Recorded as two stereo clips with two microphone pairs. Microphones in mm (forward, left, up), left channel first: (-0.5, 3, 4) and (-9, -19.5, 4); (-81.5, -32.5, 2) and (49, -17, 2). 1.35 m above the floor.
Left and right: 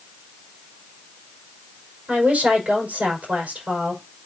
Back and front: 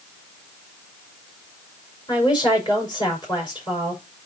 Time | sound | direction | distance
2.1 | a woman speaking | 115° right | 5.5 m